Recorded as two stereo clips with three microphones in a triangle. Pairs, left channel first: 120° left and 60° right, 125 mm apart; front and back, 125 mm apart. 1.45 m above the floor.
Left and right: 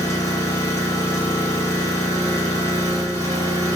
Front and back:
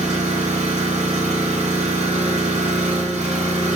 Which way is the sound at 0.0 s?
Straight behind.